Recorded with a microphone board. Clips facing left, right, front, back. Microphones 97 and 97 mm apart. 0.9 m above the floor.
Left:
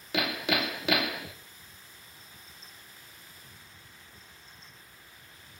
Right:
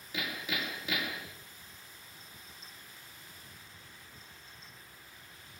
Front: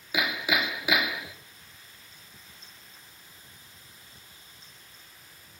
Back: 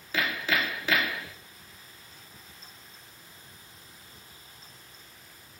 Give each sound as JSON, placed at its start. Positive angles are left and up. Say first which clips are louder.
{"t": 0.1, "sound": "hammering", "louder": "left 8 dB, front 1 dB", "azimuth_deg": 80, "distance_m": 1.3}